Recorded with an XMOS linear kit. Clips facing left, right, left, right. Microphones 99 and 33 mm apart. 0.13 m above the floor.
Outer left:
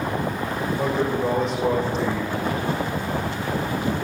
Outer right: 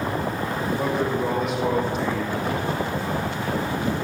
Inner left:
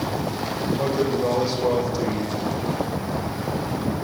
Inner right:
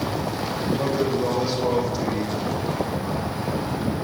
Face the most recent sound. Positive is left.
turn(degrees=-5)  # may be behind; listen again after turning